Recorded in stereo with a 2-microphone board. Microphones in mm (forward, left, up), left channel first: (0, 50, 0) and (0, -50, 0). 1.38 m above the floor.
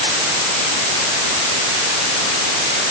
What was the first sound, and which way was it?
Only background noise.